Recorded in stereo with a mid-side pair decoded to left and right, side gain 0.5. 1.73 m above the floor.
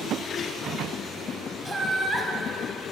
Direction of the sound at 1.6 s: 5° right.